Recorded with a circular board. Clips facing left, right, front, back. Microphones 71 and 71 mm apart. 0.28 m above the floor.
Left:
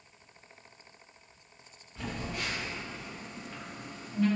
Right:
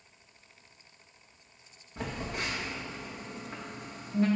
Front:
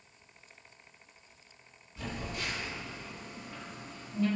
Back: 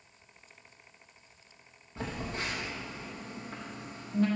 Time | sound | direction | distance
2.0 | a phone buzzing | 150° right | 4.5 m